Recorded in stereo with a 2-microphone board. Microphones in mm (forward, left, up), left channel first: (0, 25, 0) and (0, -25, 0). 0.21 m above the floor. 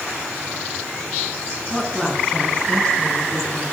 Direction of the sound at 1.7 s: Centre (ahead or behind).